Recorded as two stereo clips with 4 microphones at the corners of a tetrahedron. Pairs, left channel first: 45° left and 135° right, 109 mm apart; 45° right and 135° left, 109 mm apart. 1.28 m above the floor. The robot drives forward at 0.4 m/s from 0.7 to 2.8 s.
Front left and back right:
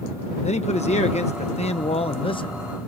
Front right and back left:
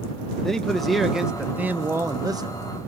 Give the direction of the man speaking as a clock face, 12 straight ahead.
11 o'clock.